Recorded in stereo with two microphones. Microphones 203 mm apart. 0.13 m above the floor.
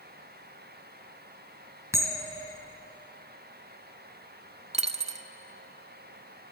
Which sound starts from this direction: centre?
A bell, at 1.9 s.